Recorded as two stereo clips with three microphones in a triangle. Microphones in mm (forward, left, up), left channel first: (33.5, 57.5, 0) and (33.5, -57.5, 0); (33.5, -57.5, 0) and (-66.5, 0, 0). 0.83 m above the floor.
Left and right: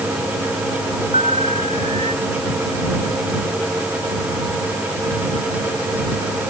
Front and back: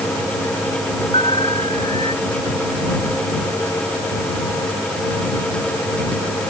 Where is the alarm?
70° right.